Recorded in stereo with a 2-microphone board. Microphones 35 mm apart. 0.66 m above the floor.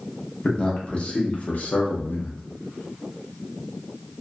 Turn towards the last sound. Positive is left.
turn(degrees=45)  # may be behind; listen again after turning